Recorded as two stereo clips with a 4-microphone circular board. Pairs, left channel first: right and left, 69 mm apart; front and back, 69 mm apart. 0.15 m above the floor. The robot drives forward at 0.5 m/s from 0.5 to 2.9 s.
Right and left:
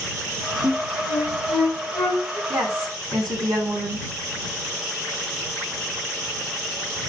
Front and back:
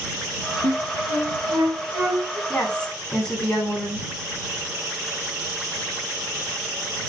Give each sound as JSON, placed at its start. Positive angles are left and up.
{"t": 0.6, "sound": "a flute", "azimuth_deg": 160, "distance_m": 3.0}
{"t": 2.5, "sound": "a woman speaking", "azimuth_deg": 70, "distance_m": 8.5}